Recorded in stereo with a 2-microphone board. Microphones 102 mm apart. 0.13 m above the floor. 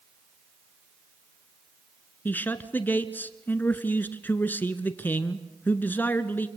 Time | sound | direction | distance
2.2 | a man speaking | 15° left (ahead or behind) | 1.3 m